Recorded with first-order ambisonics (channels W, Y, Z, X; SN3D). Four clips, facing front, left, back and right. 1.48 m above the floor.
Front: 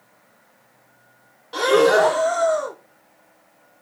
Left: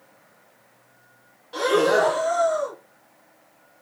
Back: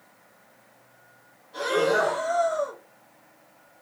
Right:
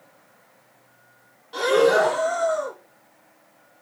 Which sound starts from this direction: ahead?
Breathing, at 1.5 s.